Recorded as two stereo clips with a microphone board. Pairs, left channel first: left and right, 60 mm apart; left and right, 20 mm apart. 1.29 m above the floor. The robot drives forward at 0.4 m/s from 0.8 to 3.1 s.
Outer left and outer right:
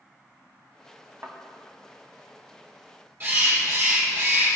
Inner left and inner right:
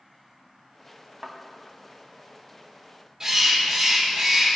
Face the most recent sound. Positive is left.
turn(degrees=-35)  # may be behind; listen again after turning